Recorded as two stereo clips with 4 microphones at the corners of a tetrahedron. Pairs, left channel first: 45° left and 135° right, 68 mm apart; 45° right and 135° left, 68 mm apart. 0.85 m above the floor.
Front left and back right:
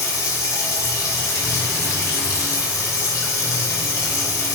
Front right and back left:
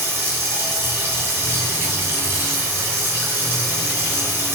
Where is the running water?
75° left, 1.9 m.